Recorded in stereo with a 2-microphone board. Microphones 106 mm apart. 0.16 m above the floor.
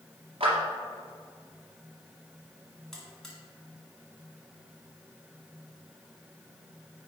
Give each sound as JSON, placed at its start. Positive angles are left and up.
{"t": 0.4, "sound": "a clap", "side_deg": -60, "distance_m": 2.5}
{"t": 2.9, "sound": "a buzzer", "side_deg": 5, "distance_m": 1.9}